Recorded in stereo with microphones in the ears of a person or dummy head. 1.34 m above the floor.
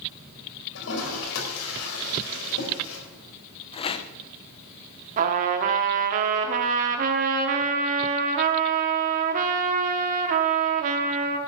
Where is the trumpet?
45° right (ahead or behind), 1.2 m.